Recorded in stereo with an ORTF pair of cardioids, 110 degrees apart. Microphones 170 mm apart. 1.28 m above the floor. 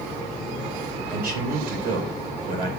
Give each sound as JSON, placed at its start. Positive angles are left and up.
{"t": 1.1, "sound": "a man speaking", "azimuth_deg": -60, "distance_m": 4.0}